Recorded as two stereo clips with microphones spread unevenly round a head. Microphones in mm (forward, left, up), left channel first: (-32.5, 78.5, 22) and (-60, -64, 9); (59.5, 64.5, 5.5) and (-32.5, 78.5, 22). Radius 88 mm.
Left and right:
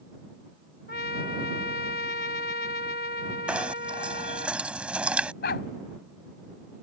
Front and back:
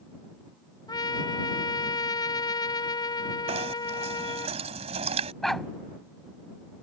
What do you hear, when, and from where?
0.9 s a trumpet: 35° left
3.5 s knocking: 175° left
5.4 s a dog barking: 80° left